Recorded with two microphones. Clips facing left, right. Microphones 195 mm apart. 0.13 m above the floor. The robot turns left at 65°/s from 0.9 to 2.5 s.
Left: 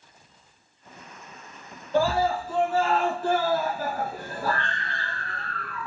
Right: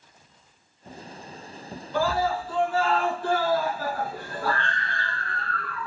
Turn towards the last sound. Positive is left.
turn(degrees=45)